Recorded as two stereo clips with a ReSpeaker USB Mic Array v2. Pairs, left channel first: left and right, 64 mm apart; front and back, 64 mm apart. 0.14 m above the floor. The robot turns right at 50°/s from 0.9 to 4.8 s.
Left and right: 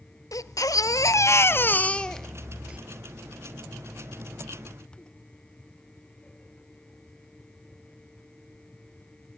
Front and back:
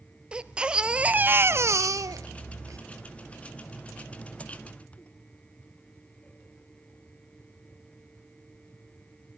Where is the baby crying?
110° left, 0.8 m; by 2.8 s 155° right, 0.8 m.